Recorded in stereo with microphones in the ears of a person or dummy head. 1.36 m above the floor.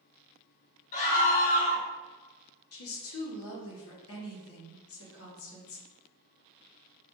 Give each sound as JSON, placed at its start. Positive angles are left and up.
{"t": 0.9, "sound": "a scream", "side_deg": 45, "distance_m": 1.6}
{"t": 2.7, "sound": "a woman speaking", "side_deg": 70, "distance_m": 1.1}